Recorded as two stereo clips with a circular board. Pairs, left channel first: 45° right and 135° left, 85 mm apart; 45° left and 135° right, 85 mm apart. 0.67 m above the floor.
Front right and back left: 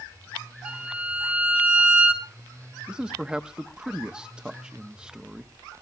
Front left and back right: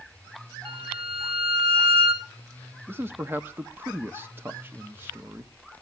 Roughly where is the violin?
Behind right.